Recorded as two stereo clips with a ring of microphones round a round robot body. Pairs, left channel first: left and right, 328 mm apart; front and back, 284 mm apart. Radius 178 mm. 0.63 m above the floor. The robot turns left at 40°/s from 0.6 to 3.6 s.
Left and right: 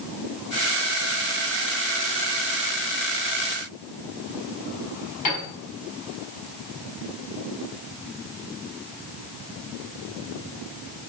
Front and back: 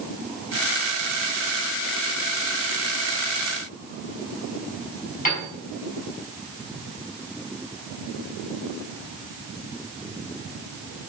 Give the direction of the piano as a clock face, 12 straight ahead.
10 o'clock.